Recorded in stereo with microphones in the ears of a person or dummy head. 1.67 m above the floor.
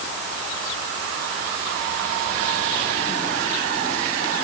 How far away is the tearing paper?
I don't hear tearing paper.